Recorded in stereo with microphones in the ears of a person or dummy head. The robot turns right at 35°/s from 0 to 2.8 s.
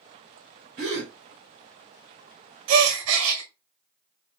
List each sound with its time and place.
0.8 s a gasp: 25° right (ahead or behind), 0.9 m
2.7 s a gasp: 70° right (ahead or behind), 0.7 m; by 3.4 s 75° right (ahead or behind), 0.7 m